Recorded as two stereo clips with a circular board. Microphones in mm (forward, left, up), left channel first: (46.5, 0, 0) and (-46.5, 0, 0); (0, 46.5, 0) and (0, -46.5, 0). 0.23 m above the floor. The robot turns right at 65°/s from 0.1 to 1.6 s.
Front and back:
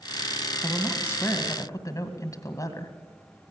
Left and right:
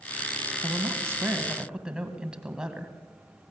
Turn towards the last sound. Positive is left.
turn(degrees=-15)